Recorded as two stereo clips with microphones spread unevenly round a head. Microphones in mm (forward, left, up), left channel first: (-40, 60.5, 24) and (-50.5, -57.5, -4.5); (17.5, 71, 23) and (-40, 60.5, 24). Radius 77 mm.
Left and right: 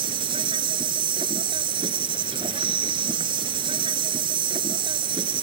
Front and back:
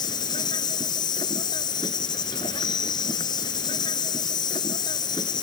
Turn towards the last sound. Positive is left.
turn(degrees=-30)